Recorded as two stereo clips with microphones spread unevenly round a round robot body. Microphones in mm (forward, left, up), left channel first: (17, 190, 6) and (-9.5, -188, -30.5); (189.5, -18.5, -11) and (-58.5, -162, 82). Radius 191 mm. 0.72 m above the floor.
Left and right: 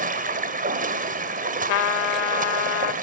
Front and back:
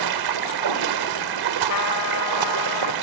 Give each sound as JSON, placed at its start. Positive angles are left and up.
{"t": 0.0, "sound": "running water", "azimuth_deg": -165, "distance_m": 2.0}
{"t": 1.7, "sound": "a trumpet", "azimuth_deg": 70, "distance_m": 1.1}